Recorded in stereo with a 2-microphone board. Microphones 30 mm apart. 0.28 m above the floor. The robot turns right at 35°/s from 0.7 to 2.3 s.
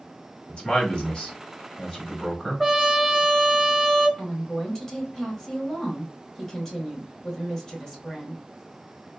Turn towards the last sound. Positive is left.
turn(degrees=20)  # may be behind; listen again after turning